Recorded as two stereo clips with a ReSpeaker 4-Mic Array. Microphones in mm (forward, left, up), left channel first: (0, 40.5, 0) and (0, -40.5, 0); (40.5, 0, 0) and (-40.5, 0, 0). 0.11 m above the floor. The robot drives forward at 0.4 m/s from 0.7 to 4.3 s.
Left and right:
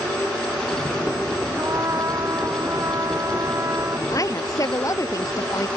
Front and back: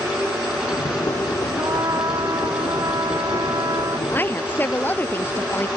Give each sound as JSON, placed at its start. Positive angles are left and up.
{"t": 1.6, "sound": "a trumpet", "azimuth_deg": -140}
{"t": 4.1, "sound": "a woman speaking", "azimuth_deg": 60}